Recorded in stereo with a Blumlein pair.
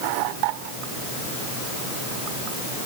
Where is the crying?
I don't hear crying.